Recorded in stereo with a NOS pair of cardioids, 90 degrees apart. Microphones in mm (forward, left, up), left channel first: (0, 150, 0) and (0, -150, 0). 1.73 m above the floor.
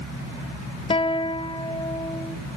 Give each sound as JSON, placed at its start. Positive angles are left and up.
{"t": 0.9, "sound": "a guitar", "azimuth_deg": 20, "distance_m": 0.8}